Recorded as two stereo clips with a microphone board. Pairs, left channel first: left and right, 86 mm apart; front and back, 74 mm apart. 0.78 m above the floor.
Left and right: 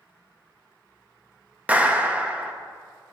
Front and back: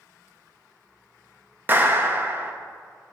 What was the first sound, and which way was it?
A clap, 150° right.